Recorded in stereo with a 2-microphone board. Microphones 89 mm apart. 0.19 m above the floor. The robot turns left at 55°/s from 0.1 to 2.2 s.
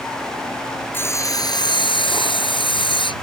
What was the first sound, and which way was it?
Sawing, 155° left.